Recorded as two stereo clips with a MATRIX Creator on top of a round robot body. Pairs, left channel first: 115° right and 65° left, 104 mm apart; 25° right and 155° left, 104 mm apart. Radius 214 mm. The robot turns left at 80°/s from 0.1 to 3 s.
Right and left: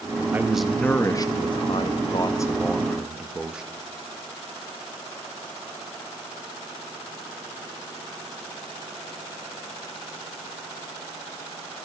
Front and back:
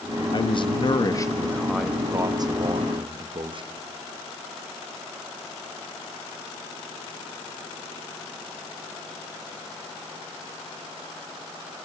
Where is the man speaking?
Straight ahead, 1.5 m; by 3.6 s 145° left, 1.5 m.